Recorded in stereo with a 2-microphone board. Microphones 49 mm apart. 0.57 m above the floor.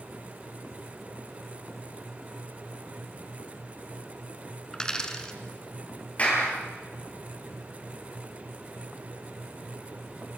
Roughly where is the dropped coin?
Centre.